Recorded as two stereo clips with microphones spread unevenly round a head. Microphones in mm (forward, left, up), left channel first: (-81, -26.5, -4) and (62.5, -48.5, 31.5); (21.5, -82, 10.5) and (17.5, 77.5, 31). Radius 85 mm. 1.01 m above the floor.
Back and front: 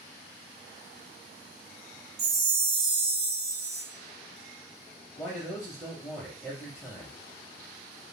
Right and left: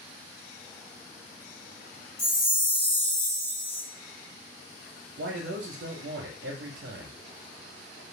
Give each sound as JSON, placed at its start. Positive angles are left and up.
{"t": 2.2, "sound": "a chime", "azimuth_deg": 0, "distance_m": 1.0}
{"t": 5.2, "sound": "a man speaking", "azimuth_deg": 100, "distance_m": 0.6}